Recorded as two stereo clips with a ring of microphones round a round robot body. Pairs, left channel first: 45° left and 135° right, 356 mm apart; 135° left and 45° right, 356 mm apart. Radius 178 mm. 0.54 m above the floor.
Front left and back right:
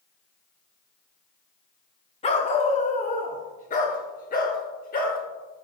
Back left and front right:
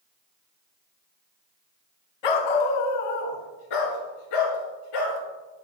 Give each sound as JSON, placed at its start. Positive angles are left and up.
{"t": 2.2, "sound": "a dog barking", "azimuth_deg": 120, "distance_m": 1.0}